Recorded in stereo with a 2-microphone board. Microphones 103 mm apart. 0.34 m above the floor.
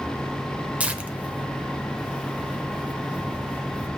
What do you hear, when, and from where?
0.8 s tearing paper: 15° right (ahead or behind), 0.9 m